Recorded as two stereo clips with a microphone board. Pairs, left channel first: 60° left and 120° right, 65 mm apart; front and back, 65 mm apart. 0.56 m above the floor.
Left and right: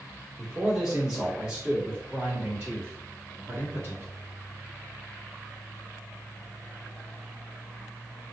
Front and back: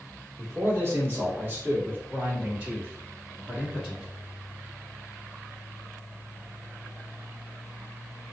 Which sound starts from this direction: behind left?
A man speaking, at 0.4 s.